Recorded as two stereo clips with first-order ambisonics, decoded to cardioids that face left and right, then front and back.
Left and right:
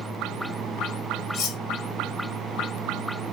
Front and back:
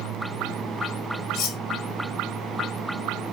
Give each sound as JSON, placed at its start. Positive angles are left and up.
{"t": 1.3, "sound": "cutlery clinking", "azimuth_deg": 50, "distance_m": 1.2}